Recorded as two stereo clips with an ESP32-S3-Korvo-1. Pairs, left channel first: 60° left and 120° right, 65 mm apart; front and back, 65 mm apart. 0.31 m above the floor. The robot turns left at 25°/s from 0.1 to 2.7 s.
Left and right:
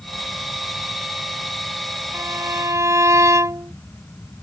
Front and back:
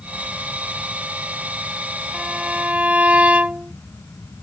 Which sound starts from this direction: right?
A violin, at 2.1 s.